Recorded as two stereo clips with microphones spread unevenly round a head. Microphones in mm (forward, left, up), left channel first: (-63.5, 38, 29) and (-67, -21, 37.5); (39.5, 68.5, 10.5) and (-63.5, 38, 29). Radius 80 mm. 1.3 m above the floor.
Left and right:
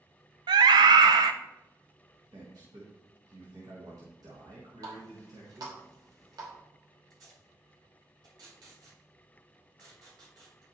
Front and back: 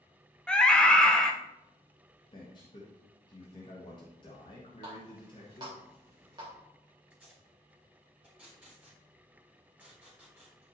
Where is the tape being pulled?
80° right, 4 m.